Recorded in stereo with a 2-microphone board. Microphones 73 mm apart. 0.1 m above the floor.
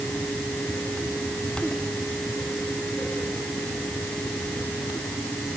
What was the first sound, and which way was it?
Only background noise.